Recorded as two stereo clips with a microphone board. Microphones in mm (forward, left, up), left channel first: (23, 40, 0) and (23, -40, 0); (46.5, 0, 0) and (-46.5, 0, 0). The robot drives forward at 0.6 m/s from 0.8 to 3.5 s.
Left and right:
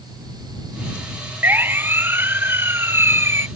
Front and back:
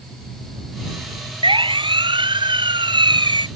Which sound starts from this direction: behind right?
A siren, at 1.4 s.